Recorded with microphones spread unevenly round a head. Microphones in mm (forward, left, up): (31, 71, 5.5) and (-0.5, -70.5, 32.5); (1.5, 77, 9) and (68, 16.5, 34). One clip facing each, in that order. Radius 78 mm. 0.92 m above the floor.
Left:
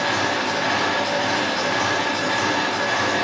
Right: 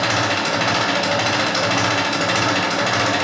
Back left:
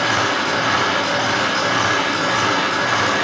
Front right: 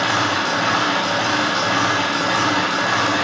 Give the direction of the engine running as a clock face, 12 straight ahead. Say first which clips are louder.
Right 2 dB, even; 4 o'clock.